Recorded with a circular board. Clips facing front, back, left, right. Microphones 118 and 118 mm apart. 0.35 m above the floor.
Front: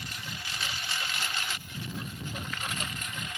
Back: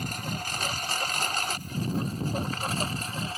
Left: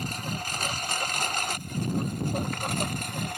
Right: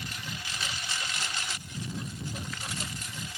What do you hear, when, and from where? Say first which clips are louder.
0.0 s a lawn mower: back 8 dB, left 7 dB; 135° left; by 3.4 s 125° left